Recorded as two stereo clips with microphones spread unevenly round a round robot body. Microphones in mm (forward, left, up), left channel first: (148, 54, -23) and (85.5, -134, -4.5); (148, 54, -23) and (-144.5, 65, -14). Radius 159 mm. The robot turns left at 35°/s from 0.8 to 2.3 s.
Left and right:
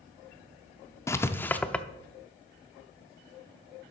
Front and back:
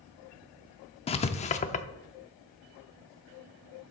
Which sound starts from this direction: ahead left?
Writing, at 1.1 s.